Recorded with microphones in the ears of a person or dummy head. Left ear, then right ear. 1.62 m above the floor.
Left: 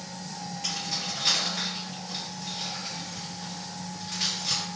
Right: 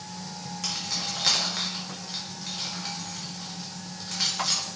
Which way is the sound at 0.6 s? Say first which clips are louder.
Right 1 dB; 45° right (ahead or behind).